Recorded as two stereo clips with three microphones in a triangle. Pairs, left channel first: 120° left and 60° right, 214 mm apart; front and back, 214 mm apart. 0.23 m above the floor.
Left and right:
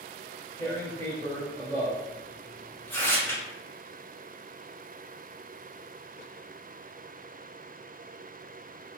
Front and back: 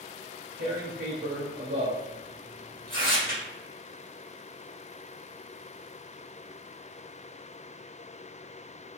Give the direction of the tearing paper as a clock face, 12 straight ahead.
5 o'clock.